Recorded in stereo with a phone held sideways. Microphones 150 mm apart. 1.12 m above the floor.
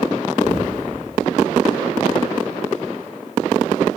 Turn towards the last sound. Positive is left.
turn(degrees=60)  # may be behind; listen again after turning